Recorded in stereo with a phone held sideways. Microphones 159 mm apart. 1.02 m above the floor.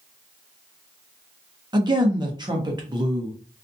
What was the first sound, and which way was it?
A woman speaking, 25° right (ahead or behind).